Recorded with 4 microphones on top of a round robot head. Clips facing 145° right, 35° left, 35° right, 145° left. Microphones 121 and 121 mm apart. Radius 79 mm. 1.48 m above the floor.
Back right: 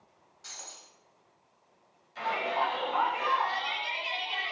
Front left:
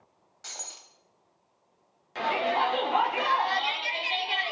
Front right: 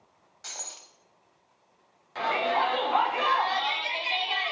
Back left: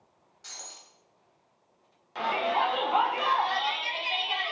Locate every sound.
0.4 s breaking glass: straight ahead, 3.5 m
2.1 s a shout: 60° left, 4.5 m